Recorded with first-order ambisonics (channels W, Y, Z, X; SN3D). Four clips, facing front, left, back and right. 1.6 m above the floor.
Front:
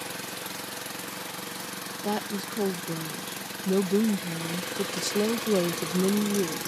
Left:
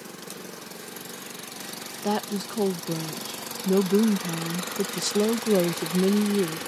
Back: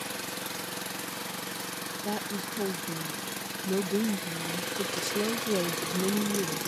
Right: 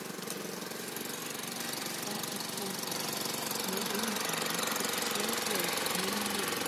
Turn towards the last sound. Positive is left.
turn(degrees=70)